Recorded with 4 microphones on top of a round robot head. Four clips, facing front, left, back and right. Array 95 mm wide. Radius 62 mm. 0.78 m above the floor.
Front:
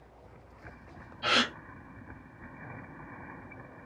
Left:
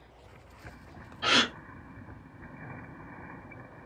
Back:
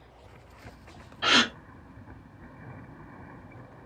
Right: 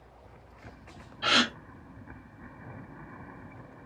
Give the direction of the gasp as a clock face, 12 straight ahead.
6 o'clock.